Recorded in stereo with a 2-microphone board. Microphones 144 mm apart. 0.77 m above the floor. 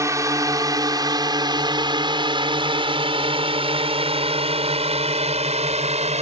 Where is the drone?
20° right (ahead or behind); by 6.2 s 50° right (ahead or behind).